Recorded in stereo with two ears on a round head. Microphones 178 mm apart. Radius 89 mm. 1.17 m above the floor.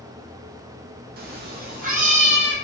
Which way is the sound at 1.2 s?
45° right (ahead or behind).